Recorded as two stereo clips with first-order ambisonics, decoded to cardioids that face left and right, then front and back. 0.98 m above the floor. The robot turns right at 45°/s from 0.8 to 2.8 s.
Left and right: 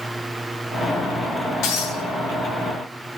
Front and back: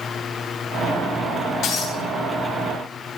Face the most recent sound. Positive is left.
turn(degrees=105)